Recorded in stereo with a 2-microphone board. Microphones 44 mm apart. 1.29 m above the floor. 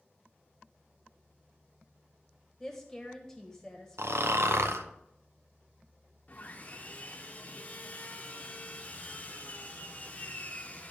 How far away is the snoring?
About 0.5 m.